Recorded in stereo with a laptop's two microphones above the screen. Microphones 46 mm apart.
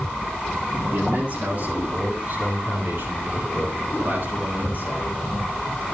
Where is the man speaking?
45° right (ahead or behind), 7.5 m; by 5.1 s 50° right (ahead or behind), 10 m.